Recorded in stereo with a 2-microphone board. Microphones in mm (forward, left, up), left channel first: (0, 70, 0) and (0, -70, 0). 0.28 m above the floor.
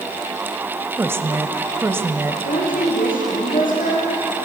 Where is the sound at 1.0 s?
15° right (ahead or behind), 1.0 m.